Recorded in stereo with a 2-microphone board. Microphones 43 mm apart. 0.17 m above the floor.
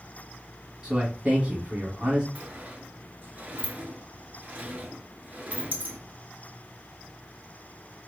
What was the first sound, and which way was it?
A man speaking, 15° right (ahead or behind).